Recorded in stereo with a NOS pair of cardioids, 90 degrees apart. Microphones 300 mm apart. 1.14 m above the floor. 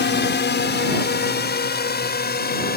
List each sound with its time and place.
0.0 s a drone: 35° left; by 2.8 s 30° left